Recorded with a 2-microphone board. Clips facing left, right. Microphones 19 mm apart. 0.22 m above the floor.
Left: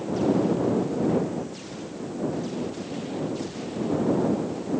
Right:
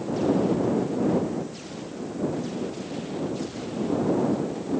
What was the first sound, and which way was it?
Only background noise.